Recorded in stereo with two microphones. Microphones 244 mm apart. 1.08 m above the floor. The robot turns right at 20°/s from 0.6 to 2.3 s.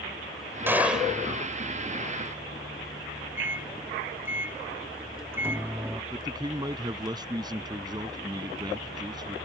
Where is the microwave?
10° right (ahead or behind).